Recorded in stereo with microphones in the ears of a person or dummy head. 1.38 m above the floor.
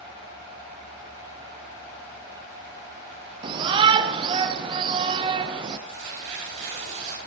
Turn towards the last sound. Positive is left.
turn(degrees=-40)  # may be behind; listen again after turning